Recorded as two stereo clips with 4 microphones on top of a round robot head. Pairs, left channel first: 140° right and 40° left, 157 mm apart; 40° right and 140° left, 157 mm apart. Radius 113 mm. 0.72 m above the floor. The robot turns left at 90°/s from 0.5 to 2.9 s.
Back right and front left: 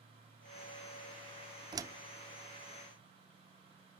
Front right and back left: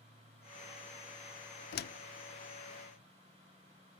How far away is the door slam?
About 1.0 m.